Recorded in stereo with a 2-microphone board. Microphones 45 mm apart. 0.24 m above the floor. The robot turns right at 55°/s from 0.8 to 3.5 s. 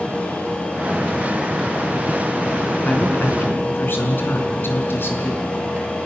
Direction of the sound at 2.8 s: 35° left.